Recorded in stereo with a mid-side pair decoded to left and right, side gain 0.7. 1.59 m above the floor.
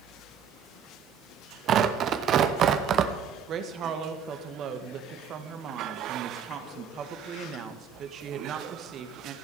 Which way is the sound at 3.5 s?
45° right.